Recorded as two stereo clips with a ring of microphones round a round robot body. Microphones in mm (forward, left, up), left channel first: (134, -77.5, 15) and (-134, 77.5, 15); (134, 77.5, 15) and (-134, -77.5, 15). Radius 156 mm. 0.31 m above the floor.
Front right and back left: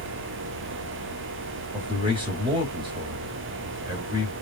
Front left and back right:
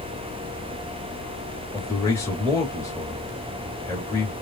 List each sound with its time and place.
1.7 s a man speaking: 95° left, 1.4 m